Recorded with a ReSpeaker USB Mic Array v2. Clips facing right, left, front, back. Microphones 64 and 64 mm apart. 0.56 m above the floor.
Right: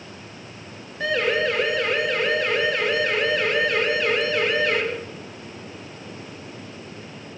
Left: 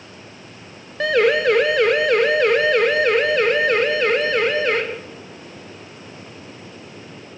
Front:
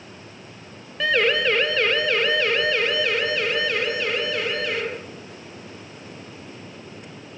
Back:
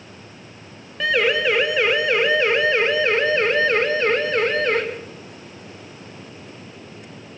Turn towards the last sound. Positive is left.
turn(degrees=135)